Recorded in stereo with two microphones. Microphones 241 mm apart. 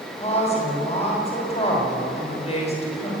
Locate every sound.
0.2 s a woman speaking: 25° left (ahead or behind), 6.5 m